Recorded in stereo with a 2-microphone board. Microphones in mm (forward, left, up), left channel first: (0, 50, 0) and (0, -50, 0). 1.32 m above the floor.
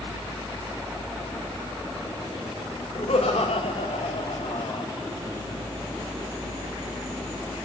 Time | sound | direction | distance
3.0 | laughter | 85° left | 4 m